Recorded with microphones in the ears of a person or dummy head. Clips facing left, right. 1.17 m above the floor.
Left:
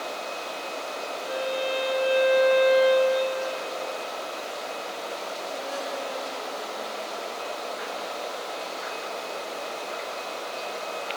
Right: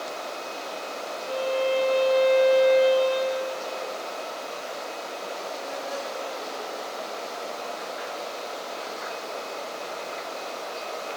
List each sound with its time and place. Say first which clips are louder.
1.2 s a violin: right 4 dB; 20° left (ahead or behind), 4 m